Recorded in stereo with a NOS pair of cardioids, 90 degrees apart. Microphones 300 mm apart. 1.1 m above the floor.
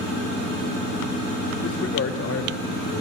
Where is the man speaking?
45° left, 4 m; by 3.0 s 50° left, 5 m.